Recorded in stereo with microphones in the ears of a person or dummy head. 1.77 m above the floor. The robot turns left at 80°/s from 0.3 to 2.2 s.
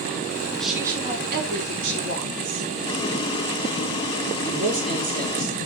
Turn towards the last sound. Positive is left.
turn(degrees=-45)  # may be behind; listen again after turning